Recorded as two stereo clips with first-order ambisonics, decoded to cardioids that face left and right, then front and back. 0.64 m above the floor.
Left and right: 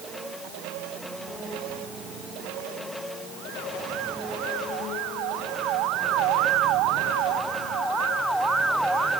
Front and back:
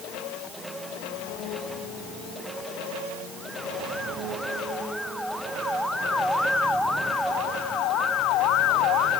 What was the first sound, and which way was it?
Only background noise.